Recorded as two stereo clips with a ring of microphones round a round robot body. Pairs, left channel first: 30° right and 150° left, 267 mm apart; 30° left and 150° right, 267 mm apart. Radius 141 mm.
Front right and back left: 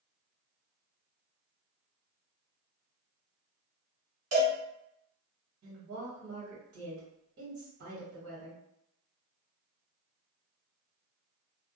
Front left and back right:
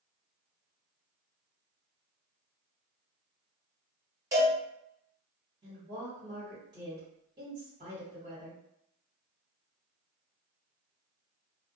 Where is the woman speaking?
155° left, 1.3 m.